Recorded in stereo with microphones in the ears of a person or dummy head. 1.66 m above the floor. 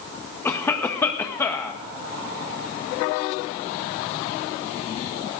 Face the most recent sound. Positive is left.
turn(degrees=5)  # may be behind; listen again after turning